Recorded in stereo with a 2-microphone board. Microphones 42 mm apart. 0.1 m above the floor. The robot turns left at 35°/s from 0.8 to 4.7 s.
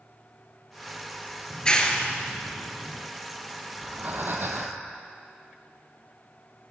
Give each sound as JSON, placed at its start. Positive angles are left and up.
{"t": 1.5, "sound": "a clap", "side_deg": 25, "distance_m": 1.2}
{"t": 3.7, "sound": "breathing", "azimuth_deg": -40, "distance_m": 1.0}